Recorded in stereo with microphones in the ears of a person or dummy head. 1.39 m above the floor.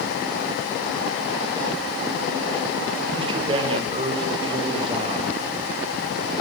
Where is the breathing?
No breathing in this recording.